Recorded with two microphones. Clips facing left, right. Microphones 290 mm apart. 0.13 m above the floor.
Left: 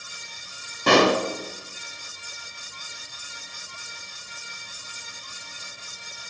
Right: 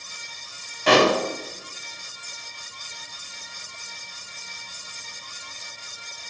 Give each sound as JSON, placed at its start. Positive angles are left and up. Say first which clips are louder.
{"t": 0.9, "sound": "a pop", "louder": "even", "side_deg": 55, "distance_m": 10.0}